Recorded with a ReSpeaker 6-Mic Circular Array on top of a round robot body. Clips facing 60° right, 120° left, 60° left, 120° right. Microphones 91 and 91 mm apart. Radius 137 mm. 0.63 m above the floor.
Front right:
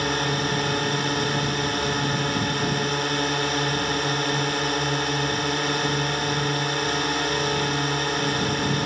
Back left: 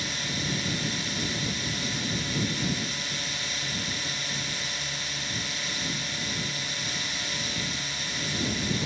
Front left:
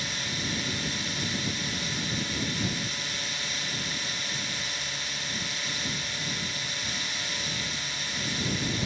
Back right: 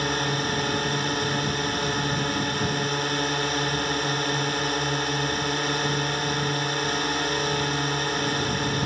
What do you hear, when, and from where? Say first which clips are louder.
0.0 s a drone: front right 10 dB, back right 10 dB; 90° right